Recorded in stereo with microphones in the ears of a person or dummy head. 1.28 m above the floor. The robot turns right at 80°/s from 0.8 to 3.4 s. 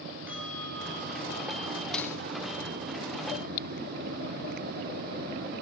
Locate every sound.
0.3 s a bell: 10° right, 5.5 m; by 1.8 s 75° left, 5.5 m
1.9 s cutlery clinking: 5° left (ahead or behind), 0.6 m; by 2.2 s 20° left (ahead or behind), 0.6 m